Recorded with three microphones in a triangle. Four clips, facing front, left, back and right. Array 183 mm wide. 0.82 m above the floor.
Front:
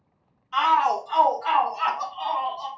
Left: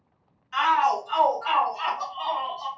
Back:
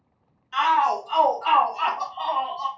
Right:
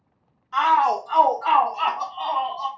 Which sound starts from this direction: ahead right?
A shout, at 0.5 s.